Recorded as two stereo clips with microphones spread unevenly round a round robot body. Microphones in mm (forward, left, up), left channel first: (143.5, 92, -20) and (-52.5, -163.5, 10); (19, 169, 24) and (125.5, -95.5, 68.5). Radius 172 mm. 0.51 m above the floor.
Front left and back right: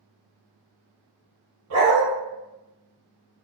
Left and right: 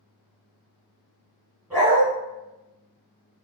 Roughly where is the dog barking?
Behind right.